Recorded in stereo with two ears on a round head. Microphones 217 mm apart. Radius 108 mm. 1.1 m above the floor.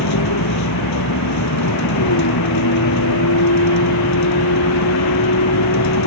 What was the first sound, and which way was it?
A vehicle, 80° left.